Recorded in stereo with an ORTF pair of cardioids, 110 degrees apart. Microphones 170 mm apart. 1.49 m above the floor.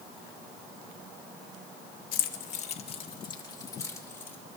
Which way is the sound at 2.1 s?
65° left.